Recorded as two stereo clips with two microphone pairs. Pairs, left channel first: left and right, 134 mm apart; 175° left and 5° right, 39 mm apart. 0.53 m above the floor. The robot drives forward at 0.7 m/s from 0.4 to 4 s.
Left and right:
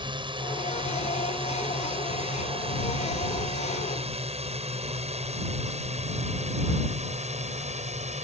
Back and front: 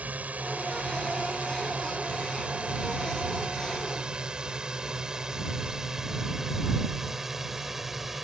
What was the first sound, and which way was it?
A drone, 45° right.